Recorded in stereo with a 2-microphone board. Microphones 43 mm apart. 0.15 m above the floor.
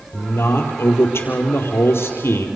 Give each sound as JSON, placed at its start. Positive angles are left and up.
{"t": 0.1, "sound": "a man speaking", "side_deg": 70, "distance_m": 4.0}